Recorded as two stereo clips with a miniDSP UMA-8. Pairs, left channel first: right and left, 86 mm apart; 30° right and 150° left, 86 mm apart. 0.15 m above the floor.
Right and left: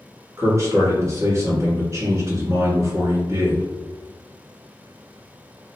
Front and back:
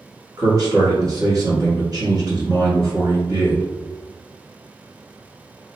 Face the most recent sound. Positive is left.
turn(degrees=130)